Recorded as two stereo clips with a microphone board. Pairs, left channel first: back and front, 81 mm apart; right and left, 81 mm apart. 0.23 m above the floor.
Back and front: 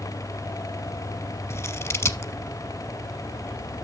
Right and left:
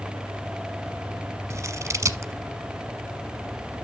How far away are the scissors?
About 1.0 m.